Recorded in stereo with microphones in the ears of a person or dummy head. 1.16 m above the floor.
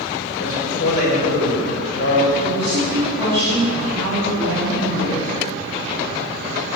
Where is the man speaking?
55° left (ahead or behind), 5.5 m.